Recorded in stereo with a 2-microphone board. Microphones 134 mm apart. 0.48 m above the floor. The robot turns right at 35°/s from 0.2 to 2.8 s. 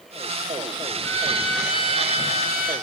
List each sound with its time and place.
1.0 s a violin: 20° left, 3 m; by 2.7 s 80° left, 3 m